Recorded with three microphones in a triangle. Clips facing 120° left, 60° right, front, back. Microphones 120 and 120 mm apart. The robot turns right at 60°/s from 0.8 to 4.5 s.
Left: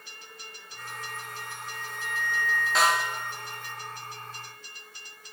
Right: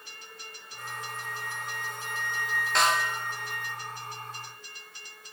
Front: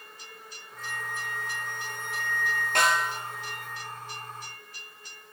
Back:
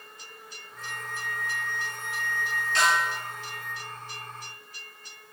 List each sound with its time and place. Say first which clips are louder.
0.8 s a flute: right 1 dB, front 1 dB; 90° right, 1.7 m; by 3.8 s 90° left, 1.7 m
2.8 s a snare drum: even, even; 35° left, 1.9 m; by 3.1 s 60° left, 1.9 m